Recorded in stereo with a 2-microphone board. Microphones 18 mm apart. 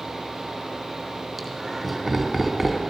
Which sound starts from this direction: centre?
Laughter, at 1.4 s.